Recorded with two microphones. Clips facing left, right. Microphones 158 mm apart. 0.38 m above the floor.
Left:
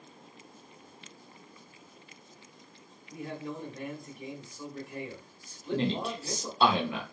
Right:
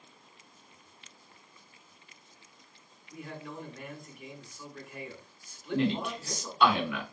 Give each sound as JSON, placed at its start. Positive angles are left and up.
{"t": 3.1, "sound": "a man speaking", "side_deg": 30, "distance_m": 1.3}
{"t": 5.7, "sound": "a man speaking", "side_deg": 30, "distance_m": 0.9}